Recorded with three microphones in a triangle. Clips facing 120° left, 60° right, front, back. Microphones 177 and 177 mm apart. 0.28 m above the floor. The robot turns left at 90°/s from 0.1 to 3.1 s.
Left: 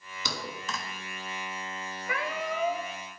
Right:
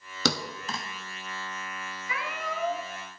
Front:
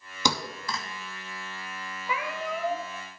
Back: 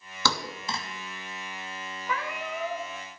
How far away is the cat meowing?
About 1.2 m.